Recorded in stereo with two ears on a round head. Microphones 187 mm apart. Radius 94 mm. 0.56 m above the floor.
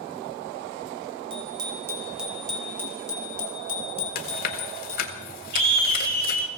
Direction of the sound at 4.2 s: 45° left (ahead or behind).